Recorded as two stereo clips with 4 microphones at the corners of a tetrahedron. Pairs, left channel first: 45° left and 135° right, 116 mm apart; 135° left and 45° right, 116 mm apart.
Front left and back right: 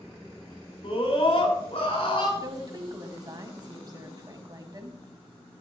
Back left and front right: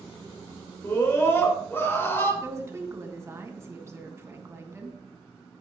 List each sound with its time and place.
0.8 s a scream: 70° left, 3.5 m
2.4 s a woman speaking: 100° right, 1.6 m